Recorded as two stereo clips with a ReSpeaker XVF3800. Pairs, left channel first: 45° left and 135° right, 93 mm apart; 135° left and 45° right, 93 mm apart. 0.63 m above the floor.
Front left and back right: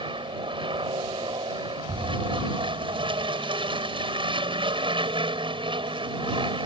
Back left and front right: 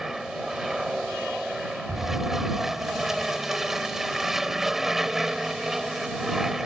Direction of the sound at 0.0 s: 130° right.